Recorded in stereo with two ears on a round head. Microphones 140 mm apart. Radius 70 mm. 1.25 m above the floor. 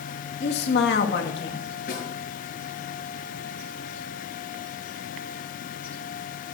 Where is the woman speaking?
80° left, 2.5 m.